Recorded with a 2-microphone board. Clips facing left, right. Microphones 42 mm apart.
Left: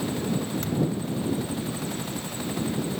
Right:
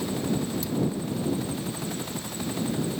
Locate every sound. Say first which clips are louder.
0.6 s a thud: left 1 dB; 55° left (ahead or behind)